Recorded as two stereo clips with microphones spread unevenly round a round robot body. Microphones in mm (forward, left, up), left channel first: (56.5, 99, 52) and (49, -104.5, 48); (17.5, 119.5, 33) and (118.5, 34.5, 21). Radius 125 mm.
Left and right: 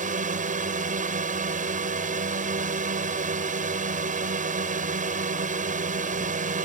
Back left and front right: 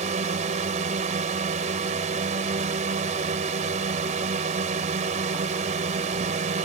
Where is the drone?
50° right.